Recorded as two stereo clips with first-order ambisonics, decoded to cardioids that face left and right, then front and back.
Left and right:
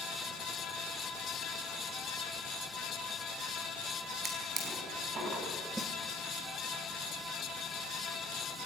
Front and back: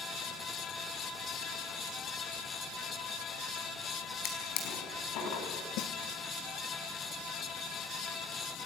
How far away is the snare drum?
About 2.0 m.